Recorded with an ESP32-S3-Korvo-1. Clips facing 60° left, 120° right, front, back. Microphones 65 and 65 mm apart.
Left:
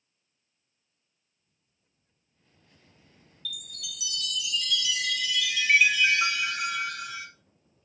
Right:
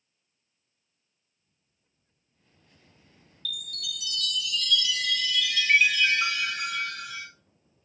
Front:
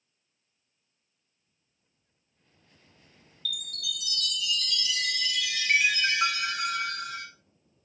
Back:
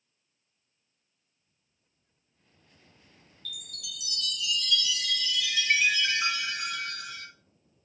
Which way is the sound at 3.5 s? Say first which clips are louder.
Right 4 dB, front 7 dB; 20° right.